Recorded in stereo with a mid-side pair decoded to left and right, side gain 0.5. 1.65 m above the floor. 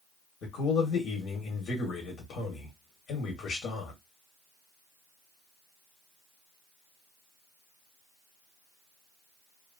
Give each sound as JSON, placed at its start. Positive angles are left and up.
{"t": 0.4, "sound": "a man speaking", "azimuth_deg": 65, "distance_m": 1.2}